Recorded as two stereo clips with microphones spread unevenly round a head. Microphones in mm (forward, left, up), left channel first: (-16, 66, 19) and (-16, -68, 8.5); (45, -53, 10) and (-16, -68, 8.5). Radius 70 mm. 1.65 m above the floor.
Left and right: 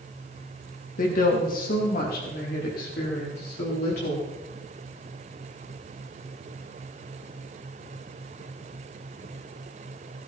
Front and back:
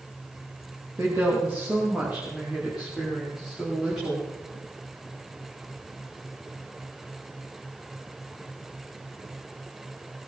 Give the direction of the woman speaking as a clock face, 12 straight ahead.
8 o'clock.